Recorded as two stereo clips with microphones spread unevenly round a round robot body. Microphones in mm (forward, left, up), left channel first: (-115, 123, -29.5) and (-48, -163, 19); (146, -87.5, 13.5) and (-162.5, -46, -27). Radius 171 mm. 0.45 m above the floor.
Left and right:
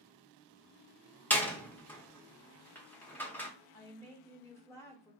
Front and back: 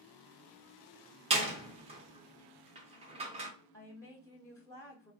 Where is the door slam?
160° left, 0.5 m.